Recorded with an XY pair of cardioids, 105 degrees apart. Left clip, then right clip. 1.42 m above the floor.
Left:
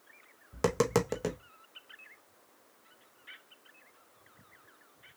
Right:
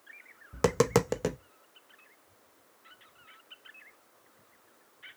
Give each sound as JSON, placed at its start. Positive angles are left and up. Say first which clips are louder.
{"t": 0.5, "sound": "tapping", "louder": "right 3 dB", "azimuth_deg": -25, "distance_m": 0.5}